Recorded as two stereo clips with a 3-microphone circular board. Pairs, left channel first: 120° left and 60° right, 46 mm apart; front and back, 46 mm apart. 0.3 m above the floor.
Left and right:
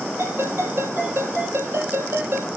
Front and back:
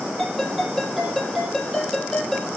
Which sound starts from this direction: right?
A ringtone, at 0.2 s.